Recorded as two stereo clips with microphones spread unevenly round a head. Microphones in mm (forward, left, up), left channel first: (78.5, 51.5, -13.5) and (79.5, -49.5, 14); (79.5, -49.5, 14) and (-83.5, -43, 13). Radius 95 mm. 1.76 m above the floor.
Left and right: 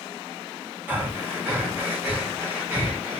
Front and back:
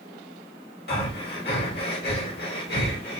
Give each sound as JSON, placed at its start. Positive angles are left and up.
{"t": 0.9, "sound": "breathing", "azimuth_deg": -20, "distance_m": 2.5}